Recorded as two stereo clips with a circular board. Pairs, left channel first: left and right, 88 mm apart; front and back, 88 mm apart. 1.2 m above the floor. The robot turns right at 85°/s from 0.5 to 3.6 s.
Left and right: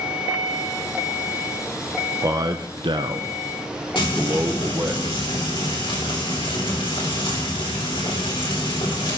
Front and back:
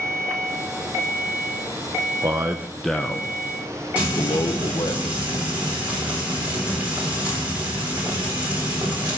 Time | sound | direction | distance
2.2 | a man speaking | 145° right | 0.7 m
4.0 | frying | 105° left | 4 m